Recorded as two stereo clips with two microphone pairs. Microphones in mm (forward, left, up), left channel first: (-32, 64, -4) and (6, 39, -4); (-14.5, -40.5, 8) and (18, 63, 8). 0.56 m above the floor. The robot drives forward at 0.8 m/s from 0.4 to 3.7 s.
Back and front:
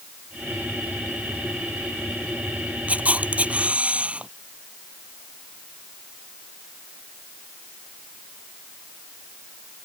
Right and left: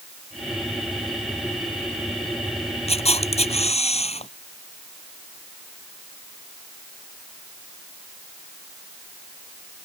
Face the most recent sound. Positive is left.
turn(degrees=-95)